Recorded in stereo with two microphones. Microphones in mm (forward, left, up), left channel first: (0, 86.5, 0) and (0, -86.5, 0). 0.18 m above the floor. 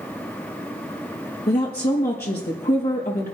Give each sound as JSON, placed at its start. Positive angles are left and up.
{"t": 1.5, "sound": "a woman speaking", "side_deg": 70, "distance_m": 5.0}